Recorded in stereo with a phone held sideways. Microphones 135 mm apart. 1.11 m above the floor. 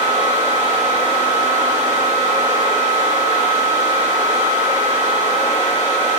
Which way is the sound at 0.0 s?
60° right (ahead or behind).